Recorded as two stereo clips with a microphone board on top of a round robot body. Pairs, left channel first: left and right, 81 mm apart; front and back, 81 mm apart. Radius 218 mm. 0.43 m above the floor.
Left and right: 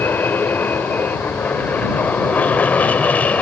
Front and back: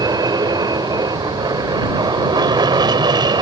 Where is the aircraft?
155° left; by 3.4 s 160° left.